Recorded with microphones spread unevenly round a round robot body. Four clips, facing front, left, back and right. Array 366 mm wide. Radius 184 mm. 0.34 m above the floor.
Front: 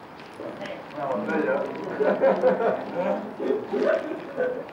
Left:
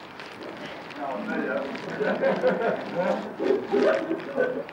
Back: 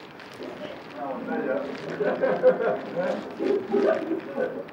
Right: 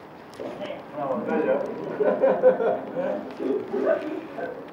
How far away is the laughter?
About 1.8 m.